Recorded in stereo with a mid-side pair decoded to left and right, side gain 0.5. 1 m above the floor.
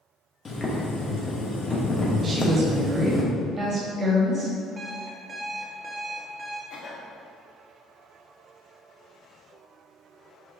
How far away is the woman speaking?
About 1.4 m.